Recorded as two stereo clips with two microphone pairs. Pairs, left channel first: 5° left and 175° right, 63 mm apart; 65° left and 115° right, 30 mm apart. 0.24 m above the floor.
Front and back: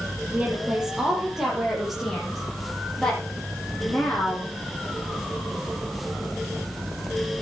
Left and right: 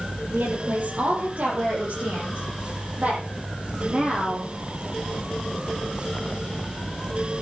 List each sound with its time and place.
0.3 s a woman speaking: 100° right, 6 m; by 4.5 s 65° right, 9.5 m